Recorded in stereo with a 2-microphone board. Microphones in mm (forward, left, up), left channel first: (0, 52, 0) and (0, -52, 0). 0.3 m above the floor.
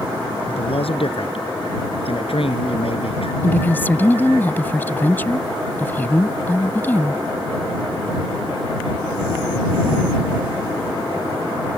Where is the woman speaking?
20° left (ahead or behind).